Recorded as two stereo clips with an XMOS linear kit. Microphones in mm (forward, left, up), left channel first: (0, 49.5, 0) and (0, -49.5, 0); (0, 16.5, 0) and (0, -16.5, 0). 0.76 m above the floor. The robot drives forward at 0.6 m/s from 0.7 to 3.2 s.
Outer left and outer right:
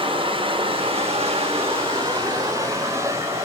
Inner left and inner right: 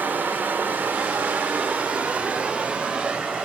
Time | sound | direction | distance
0.0 | running water | 65° right (ahead or behind) | 0.8 m